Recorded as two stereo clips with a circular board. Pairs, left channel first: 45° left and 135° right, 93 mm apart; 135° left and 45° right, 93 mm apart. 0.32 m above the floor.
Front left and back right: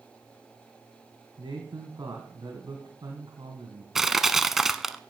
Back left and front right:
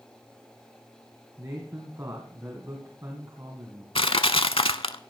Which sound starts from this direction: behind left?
Crushing, at 4.0 s.